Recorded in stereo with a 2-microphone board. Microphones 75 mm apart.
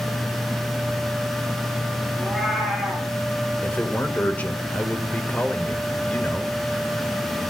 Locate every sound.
2.2 s a cat meowing: 5° left (ahead or behind), 4.5 m
3.6 s a man speaking: 20° left (ahead or behind), 1.4 m